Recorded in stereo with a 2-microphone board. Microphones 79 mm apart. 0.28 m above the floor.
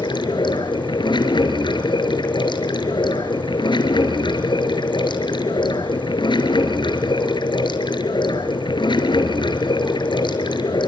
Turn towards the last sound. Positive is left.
turn(degrees=75)  # may be behind; listen again after turning